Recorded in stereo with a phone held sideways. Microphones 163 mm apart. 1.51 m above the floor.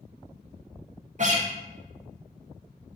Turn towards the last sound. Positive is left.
turn(degrees=-50)  # may be behind; listen again after turning